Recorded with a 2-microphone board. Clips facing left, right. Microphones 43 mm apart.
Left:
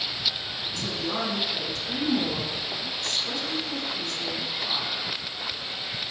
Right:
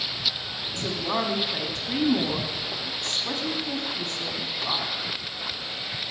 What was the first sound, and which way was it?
A woman speaking, 35° right (ahead or behind).